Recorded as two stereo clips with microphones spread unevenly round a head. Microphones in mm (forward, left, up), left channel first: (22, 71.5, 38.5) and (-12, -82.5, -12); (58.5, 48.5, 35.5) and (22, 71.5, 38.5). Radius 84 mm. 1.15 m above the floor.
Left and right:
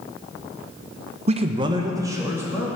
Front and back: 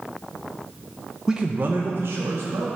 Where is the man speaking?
130° right, 0.8 m; by 2.7 s 175° right, 2.5 m.